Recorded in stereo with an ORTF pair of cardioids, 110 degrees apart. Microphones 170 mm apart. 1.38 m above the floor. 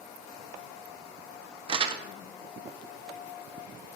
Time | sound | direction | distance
1.7 | crumpling | 35° right | 0.6 m